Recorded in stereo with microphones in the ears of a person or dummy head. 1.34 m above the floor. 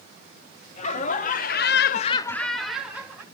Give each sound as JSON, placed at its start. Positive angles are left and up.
{"t": 0.8, "sound": "laughter", "side_deg": 40, "distance_m": 1.5}